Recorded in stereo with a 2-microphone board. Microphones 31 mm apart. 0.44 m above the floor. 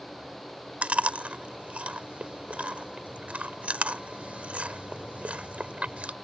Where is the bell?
No bell in this recording.